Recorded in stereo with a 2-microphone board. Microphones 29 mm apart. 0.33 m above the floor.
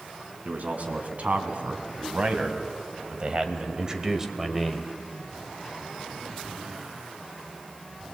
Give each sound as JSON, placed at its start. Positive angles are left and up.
{"t": 0.5, "sound": "a man speaking", "side_deg": -65, "distance_m": 3.0}